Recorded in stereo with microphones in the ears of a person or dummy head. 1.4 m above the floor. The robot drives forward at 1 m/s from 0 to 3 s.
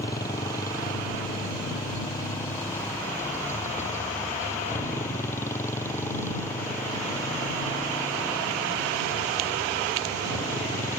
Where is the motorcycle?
25° left (ahead or behind); by 11.0 s 20° left (ahead or behind).